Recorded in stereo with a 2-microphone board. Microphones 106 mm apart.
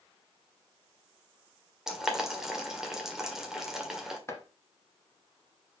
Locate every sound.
1.9 s boiling: 5° right (ahead or behind), 1.5 m
4.3 s chopping: 25° left (ahead or behind), 1.4 m